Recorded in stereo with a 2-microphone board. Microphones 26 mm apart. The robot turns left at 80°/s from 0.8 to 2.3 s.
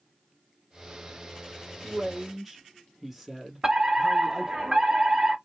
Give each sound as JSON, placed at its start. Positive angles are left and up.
{"t": 1.8, "sound": "a man speaking", "azimuth_deg": -135, "distance_m": 2.0}
{"t": 3.6, "sound": "a fire alarm", "side_deg": -20, "distance_m": 2.0}